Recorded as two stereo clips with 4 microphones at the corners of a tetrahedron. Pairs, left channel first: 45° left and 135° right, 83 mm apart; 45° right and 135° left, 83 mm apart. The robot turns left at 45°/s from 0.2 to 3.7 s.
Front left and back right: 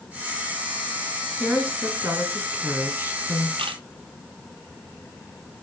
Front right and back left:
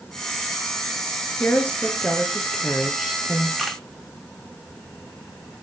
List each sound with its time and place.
1.4 s a woman speaking: 80° right, 1.2 m; by 3.5 s 175° right, 1.2 m
3.6 s a camera shutter: 135° right, 0.7 m; by 3.8 s 140° right, 0.7 m